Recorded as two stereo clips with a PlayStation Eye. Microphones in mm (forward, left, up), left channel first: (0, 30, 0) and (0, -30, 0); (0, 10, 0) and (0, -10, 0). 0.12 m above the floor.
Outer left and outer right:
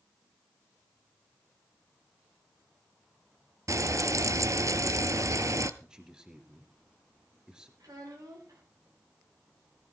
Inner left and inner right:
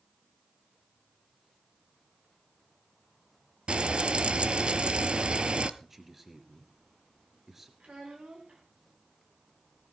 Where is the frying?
60° right (ahead or behind), 0.7 m.